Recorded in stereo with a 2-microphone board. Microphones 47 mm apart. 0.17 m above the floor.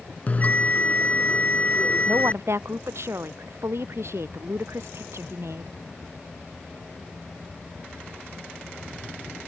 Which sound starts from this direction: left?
A bell, at 0.3 s.